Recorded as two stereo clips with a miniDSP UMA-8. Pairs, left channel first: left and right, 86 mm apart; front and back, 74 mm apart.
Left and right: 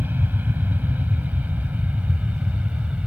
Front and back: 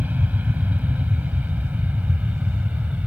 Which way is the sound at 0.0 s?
135° right.